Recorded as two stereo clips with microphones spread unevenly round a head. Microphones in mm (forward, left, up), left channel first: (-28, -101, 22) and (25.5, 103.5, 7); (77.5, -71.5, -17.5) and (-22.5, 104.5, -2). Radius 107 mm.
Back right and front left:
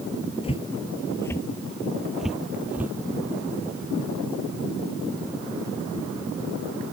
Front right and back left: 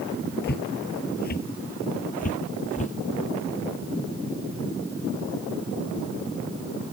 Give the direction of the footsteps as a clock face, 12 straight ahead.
2 o'clock.